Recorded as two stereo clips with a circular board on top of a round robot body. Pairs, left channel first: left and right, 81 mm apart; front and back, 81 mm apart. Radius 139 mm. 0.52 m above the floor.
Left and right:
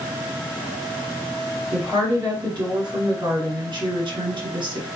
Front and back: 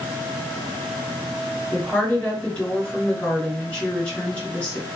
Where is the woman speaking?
70° right, 2.5 m.